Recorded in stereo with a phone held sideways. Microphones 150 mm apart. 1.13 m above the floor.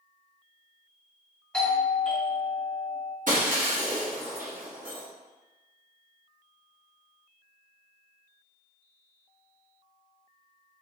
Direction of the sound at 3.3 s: 60° right (ahead or behind).